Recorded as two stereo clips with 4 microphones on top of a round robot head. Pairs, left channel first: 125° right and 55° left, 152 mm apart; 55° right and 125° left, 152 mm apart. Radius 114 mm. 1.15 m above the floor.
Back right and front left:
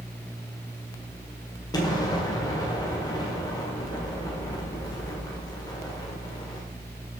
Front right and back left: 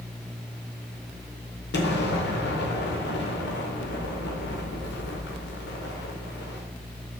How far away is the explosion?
About 1.7 m.